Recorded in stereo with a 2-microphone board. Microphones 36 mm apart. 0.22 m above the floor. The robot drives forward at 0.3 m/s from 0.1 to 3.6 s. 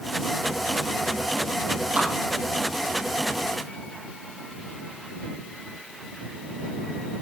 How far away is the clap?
About 5 m.